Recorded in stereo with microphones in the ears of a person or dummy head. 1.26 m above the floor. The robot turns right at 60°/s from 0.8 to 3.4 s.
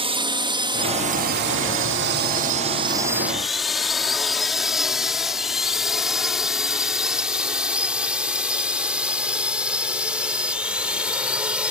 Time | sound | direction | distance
0.0 | a drone | 25° right (ahead or behind) | ?